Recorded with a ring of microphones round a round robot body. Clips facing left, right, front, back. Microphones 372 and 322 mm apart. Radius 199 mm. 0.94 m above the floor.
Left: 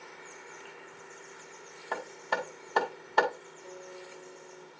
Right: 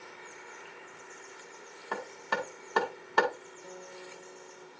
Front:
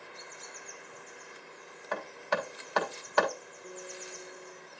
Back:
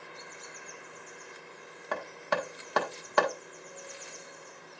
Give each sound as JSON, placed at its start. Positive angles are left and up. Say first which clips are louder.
{"t": 1.9, "sound": "hammering", "louder": "even, back 1 dB", "azimuth_deg": -165, "distance_m": 1.9}
{"t": 3.6, "sound": "a guitar", "louder": "left 2 dB, front 3 dB", "azimuth_deg": -70, "distance_m": 1.4}